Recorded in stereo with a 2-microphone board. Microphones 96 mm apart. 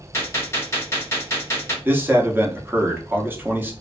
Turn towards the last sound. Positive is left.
turn(degrees=-20)  # may be behind; listen again after turning